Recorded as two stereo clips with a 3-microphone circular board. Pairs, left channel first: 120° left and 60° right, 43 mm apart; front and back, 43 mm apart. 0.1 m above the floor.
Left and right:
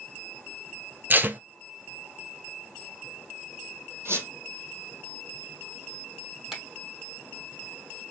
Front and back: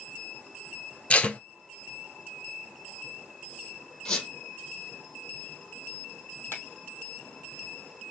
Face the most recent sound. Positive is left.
turn(degrees=15)